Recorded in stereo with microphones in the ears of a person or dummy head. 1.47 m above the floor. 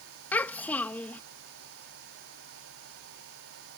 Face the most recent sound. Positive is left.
turn(degrees=5)  # may be behind; listen again after turning